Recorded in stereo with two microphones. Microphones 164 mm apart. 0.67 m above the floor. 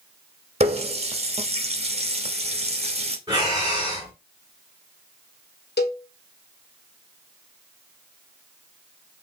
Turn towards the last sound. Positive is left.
turn(degrees=80)